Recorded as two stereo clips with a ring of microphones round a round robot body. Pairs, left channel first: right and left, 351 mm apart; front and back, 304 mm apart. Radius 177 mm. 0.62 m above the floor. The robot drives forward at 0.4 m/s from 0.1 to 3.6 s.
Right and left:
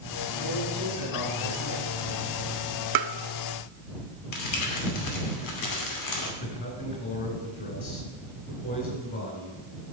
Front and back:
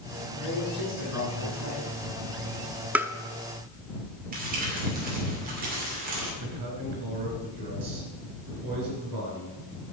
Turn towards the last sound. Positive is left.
turn(degrees=-155)